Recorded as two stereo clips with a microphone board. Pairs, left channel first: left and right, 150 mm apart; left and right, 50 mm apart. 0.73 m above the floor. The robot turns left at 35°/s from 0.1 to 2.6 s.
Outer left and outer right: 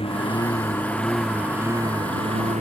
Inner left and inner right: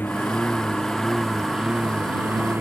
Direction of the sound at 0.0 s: 40° left.